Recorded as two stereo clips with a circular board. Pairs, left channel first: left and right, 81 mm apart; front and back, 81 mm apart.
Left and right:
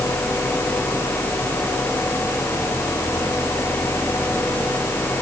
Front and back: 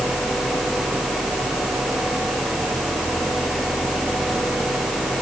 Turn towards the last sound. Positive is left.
No sound to turn to.